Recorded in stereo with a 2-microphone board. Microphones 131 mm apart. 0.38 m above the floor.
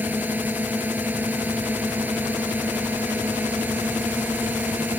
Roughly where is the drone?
Centre.